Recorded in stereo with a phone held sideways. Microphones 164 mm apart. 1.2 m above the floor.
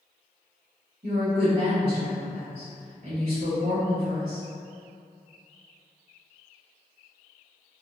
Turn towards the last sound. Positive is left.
turn(degrees=-60)  # may be behind; listen again after turning